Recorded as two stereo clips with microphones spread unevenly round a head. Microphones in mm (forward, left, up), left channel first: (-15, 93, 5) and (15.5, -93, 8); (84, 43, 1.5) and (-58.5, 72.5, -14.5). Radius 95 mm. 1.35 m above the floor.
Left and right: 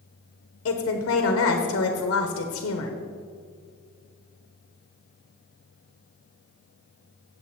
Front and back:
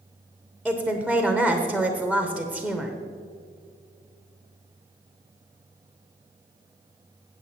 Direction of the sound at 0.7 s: 75° left.